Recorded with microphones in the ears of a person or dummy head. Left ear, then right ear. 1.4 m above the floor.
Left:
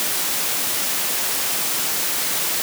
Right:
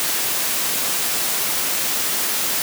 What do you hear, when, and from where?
Only background noise.